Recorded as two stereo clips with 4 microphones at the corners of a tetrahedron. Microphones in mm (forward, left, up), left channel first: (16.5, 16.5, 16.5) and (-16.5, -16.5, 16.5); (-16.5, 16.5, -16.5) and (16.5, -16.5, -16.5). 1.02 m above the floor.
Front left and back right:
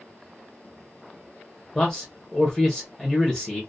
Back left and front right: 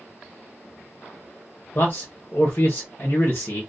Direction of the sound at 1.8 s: 120° left.